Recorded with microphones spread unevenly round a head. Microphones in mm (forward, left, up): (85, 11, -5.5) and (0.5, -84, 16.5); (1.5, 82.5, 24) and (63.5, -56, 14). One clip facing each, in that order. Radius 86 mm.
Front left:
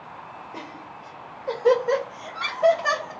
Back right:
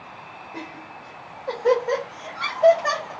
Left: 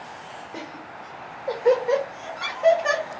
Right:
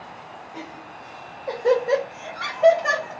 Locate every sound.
0.5 s laughter: 135° left, 0.7 m; by 3.1 s 50° right, 1.1 m